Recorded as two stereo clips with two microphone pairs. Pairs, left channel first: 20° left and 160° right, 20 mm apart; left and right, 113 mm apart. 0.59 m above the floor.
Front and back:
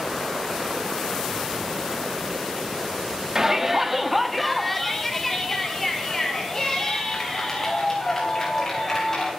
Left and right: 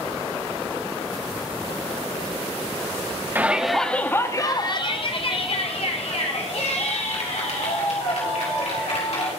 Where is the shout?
135° right, 1.0 m; by 9.3 s 80° left, 4.5 m.